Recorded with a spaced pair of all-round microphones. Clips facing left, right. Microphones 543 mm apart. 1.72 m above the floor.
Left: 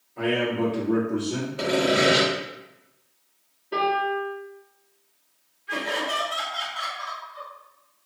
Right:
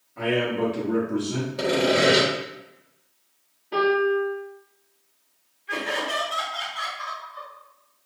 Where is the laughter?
35° left (ahead or behind), 1.5 m.